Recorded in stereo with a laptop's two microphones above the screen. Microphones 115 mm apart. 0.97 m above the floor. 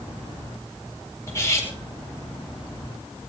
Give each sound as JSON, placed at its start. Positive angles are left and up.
{"t": 1.3, "sound": "cutlery clinking", "side_deg": 25, "distance_m": 3.0}